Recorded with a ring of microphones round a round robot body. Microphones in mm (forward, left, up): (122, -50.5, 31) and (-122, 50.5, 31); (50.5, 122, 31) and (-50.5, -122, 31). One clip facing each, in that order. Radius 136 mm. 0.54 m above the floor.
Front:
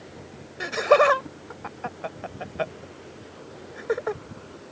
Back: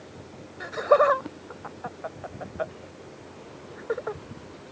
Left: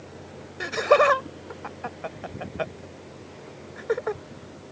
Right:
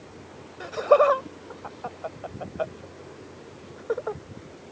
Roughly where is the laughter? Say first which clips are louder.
Front 1 dB, right 1 dB; ahead.